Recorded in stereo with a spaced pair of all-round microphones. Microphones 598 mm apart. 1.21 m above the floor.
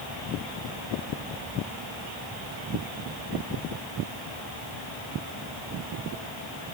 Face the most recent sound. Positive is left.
No sound to turn to.